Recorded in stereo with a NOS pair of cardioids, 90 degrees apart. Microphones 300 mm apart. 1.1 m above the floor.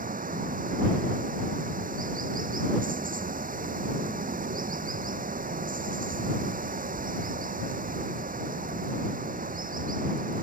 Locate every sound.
0.0 s running water: 25° right